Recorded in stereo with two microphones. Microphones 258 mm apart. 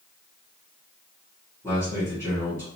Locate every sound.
1.6 s a man speaking: 10° left (ahead or behind), 1.8 m